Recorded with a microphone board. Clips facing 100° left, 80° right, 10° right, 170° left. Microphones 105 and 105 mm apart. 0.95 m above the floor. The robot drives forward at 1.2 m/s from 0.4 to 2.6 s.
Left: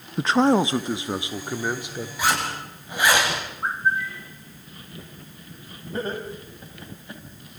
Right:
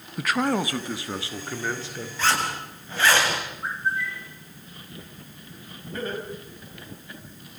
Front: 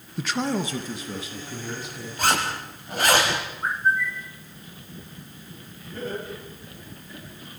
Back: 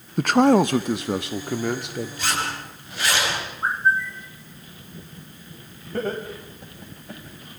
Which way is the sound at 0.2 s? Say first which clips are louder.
Left 6 dB, back 10 dB; 155° left.